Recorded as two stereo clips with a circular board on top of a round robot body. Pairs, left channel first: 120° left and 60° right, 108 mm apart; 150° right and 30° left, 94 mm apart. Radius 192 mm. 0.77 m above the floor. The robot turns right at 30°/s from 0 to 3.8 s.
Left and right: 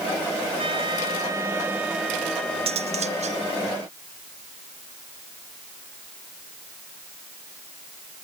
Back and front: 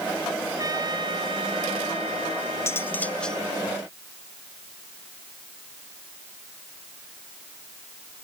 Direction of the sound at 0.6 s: 20° right.